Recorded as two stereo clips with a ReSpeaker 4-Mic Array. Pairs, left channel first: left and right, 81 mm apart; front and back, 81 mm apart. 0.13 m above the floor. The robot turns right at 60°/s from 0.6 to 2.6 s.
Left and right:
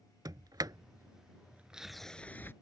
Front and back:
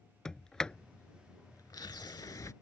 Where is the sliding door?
80° right; by 2.5 s 35° left.